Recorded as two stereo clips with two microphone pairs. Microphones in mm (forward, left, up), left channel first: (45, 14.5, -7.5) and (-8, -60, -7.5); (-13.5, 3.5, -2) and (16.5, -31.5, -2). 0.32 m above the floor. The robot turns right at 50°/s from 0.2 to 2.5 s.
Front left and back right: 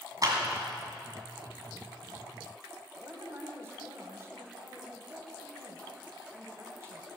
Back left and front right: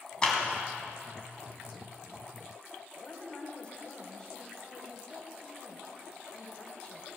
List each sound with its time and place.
0.2 s a clap: 160° right, 2.5 m; by 0.4 s 150° right, 2.5 m
3.0 s a woman speaking: 170° right, 1.5 m